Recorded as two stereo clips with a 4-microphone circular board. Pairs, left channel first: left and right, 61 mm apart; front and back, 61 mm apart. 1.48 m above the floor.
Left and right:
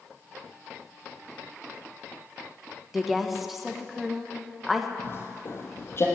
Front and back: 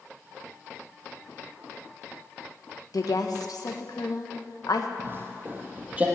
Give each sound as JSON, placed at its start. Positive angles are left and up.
{"t": 2.9, "sound": "a woman speaking", "azimuth_deg": 0, "distance_m": 1.2}
{"t": 5.0, "sound": "footsteps", "azimuth_deg": 135, "distance_m": 2.5}